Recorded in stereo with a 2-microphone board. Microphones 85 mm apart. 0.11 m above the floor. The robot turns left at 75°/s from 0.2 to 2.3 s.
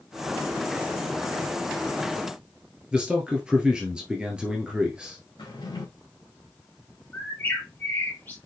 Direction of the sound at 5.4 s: 60° left (ahead or behind).